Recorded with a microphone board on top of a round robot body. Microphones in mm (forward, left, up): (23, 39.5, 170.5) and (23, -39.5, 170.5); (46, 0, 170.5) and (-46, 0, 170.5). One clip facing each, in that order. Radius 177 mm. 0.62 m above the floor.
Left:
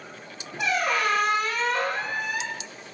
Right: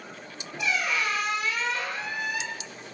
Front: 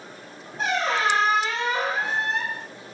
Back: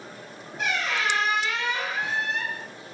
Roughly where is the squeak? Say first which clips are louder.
Left 4 dB, front 4 dB; ahead left.